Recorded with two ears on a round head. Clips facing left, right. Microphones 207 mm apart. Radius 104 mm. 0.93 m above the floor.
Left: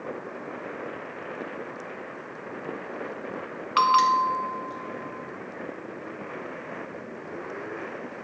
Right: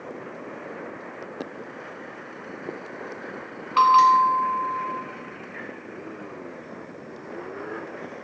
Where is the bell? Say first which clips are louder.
Right 5 dB; 20° left (ahead or behind), 1.3 m.